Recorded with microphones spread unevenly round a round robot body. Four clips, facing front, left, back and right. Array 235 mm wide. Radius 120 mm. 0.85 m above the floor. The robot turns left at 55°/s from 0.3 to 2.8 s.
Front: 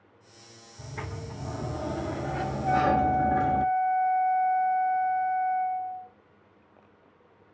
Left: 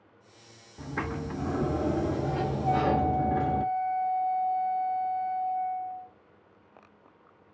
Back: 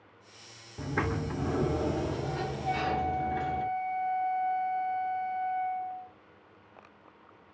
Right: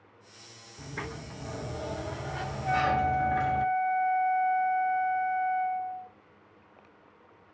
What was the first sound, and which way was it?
A sliding door, 170° left.